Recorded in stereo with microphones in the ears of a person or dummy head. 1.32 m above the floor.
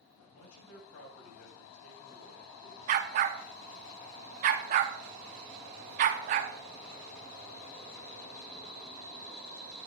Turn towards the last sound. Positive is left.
turn(degrees=-40)  # may be behind; listen again after turning